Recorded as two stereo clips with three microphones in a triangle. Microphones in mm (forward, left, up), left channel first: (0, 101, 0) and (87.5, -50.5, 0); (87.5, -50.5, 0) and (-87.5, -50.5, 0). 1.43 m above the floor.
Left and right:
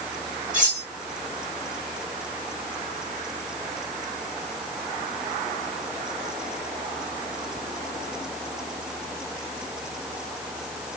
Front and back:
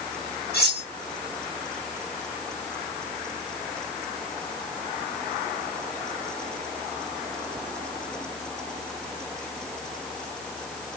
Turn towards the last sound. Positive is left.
turn(degrees=-20)